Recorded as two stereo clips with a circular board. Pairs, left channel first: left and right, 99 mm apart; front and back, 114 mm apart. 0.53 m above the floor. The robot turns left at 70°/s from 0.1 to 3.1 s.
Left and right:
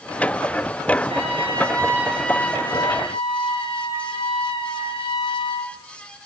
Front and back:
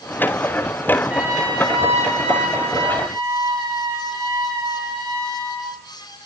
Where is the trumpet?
100° right, 7.5 m; by 5.7 s 120° left, 7.5 m.